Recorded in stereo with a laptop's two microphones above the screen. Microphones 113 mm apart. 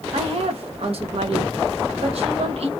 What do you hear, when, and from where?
0.1 s a woman speaking: 60° right (ahead or behind), 0.8 m